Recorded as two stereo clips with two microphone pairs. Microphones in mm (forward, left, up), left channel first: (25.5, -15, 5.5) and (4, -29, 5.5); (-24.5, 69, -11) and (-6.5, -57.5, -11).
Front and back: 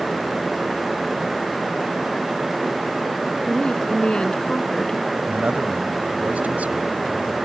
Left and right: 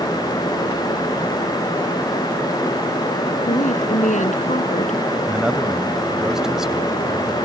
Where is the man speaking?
170° right.